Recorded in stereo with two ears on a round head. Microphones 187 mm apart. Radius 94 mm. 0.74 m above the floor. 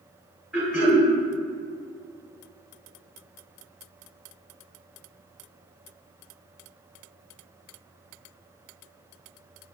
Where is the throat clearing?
5° right (ahead or behind), 1.8 m.